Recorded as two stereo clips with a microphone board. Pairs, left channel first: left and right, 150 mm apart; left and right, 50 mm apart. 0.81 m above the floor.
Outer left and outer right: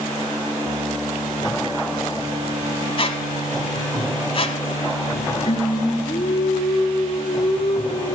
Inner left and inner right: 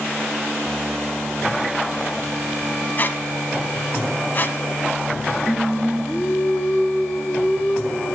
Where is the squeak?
40° left (ahead or behind), 0.9 m.